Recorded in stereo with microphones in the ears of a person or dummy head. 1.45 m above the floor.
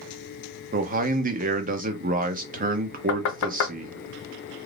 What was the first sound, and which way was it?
A man speaking, 45° right (ahead or behind).